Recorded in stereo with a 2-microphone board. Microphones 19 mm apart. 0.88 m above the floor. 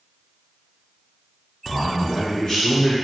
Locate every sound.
1.7 s a man speaking: 45° left (ahead or behind), 3.5 m